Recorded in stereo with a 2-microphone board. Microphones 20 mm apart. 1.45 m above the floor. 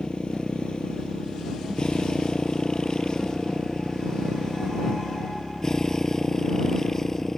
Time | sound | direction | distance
0.0 | a motorcycle | 45° left (ahead or behind) | ?